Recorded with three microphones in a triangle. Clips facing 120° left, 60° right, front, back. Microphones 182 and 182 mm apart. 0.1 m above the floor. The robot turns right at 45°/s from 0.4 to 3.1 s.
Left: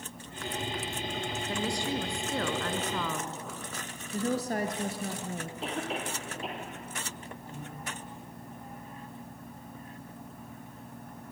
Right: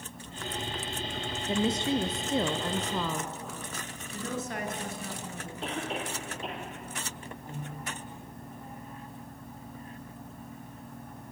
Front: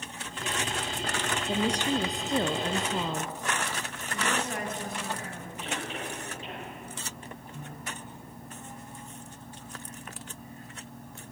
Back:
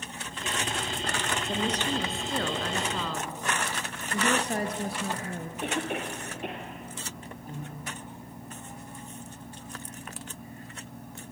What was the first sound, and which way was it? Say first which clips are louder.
A woman speaking: right 6 dB, front 3 dB; 70° right.